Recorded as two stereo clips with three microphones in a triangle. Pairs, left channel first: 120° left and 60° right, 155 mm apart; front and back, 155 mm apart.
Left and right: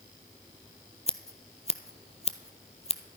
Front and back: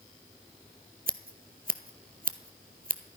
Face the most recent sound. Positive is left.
turn(degrees=165)